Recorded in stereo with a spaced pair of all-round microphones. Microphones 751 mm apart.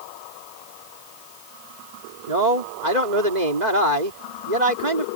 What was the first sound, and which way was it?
A man speaking, 65° right (ahead or behind).